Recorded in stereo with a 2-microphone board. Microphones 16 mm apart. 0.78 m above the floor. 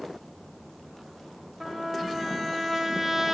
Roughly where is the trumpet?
Centre.